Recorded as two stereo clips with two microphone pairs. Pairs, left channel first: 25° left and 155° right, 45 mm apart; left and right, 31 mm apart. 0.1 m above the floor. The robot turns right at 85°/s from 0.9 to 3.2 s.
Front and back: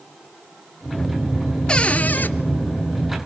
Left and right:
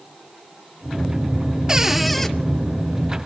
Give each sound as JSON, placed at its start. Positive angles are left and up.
{"t": 1.7, "sound": "a cupboard door", "azimuth_deg": -35, "distance_m": 0.8}